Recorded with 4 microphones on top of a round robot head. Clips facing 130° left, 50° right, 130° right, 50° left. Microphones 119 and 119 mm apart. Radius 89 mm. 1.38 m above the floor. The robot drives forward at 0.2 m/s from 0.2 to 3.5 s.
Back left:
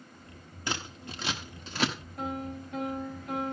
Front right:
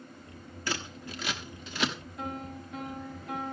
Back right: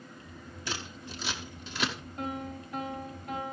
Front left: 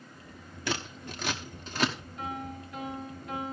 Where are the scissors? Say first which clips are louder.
Even, front left 5 dB; 65° left, 1.0 m; by 1.9 s 90° left, 1.0 m.